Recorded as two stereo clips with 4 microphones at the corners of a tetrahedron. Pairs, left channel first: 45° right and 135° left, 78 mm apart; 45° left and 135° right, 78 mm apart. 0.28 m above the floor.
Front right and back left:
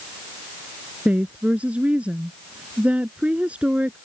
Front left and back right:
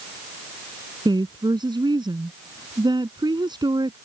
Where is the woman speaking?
150° right.